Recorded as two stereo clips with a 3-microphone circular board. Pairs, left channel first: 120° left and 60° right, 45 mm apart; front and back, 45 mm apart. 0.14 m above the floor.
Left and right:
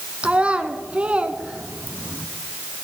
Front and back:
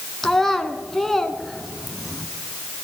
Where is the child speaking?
75° right, 1.1 m.